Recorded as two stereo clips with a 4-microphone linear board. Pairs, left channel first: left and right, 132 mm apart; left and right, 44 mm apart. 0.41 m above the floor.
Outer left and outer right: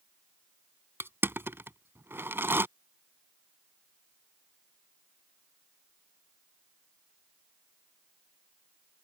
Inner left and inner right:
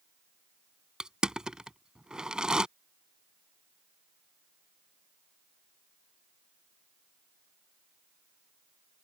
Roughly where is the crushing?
Centre.